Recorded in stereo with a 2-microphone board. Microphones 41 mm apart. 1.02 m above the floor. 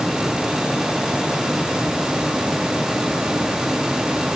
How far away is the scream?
No scream in this recording.